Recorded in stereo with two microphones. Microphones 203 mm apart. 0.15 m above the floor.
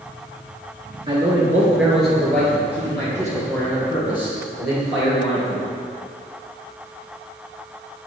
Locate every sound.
1.1 s a man speaking: 20° right (ahead or behind), 1.5 m; by 5.6 s 25° left (ahead or behind), 4.5 m